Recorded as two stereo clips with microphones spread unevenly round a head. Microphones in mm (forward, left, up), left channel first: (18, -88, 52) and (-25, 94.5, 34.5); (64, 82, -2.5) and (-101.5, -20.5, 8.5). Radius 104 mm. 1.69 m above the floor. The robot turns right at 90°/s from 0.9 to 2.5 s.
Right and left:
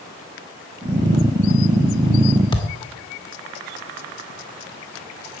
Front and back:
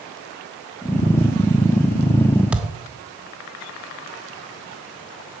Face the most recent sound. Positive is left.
turn(degrees=-80)